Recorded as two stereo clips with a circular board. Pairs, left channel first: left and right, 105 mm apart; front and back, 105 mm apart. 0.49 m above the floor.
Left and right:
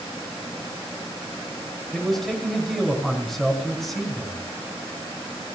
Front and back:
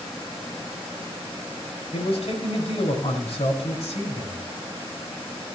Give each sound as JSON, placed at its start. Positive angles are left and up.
{"t": 1.9, "sound": "a man speaking", "azimuth_deg": 5, "distance_m": 5.0}